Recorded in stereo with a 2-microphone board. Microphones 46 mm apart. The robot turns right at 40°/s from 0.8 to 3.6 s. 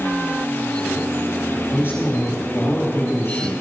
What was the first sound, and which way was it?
A man speaking, 45° left.